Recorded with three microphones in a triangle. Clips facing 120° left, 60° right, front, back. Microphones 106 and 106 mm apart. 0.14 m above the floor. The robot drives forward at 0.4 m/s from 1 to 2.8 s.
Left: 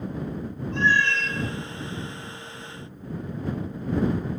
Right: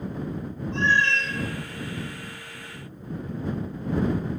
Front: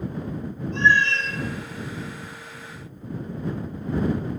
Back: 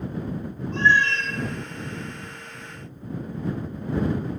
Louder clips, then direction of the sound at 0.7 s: Even, even; 120° right.